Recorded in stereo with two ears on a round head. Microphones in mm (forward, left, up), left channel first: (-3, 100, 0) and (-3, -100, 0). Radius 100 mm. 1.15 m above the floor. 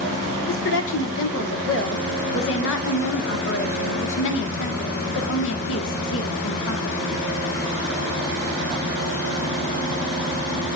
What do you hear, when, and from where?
0.5 s a woman speaking: 60° left (ahead or behind), 1.6 m